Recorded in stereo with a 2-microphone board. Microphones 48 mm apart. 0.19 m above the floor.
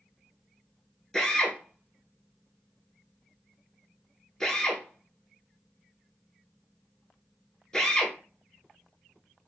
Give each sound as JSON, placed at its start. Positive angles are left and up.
{"t": 1.1, "sound": "a drill", "side_deg": 15, "distance_m": 1.1}